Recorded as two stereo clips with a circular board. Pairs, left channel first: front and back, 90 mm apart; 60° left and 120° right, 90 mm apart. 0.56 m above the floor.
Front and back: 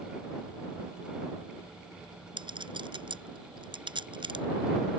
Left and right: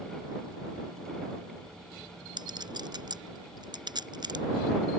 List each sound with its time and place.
2.4 s a clink: 155° right